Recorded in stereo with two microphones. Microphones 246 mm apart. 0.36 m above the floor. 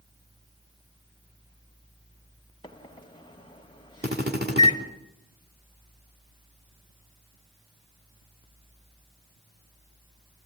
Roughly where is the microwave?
Centre.